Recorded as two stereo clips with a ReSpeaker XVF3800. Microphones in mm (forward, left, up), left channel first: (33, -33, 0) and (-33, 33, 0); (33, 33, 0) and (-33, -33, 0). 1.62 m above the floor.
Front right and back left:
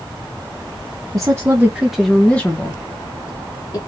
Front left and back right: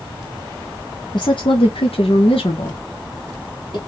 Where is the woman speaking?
80° left, 0.8 m; by 3.8 s 5° left, 1.5 m.